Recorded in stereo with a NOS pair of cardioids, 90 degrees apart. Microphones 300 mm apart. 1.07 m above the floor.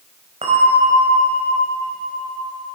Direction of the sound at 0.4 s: 20° right.